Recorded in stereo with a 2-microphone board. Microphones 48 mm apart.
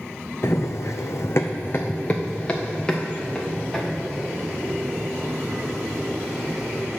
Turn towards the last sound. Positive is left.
turn(degrees=0)  # may be behind; listen again after turning